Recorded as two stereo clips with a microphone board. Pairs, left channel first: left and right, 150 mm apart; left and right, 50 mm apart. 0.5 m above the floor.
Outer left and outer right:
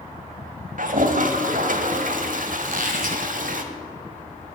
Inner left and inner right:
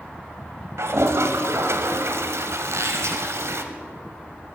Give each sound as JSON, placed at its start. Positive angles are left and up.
{"t": 0.8, "sound": "a toilet flushing", "side_deg": -70, "distance_m": 1.0}
{"t": 2.6, "sound": "a squeak", "side_deg": -75, "distance_m": 1.5}